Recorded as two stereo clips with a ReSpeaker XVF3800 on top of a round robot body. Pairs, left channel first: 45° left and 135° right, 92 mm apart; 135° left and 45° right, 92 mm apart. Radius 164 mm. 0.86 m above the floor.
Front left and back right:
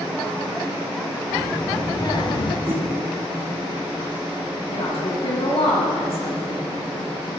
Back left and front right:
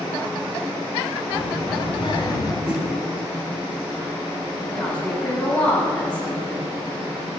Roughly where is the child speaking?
Left.